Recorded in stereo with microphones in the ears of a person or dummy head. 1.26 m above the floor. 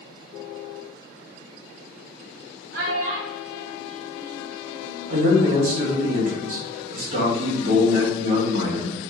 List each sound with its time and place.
2.7 s a child speaking: 65° right (ahead or behind), 1.4 m; by 5.1 s 60° right (ahead or behind), 1.4 m
5.1 s a man speaking: 55° right (ahead or behind), 1.8 m